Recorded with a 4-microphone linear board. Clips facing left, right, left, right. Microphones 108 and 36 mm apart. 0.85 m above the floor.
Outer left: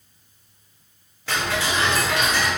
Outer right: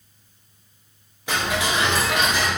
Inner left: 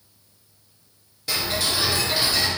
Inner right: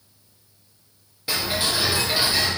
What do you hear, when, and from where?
1.3 s ticking: 15° right (ahead or behind), 0.9 m